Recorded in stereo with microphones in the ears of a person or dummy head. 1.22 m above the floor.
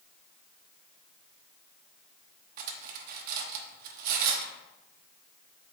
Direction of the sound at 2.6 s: 55° right (ahead or behind).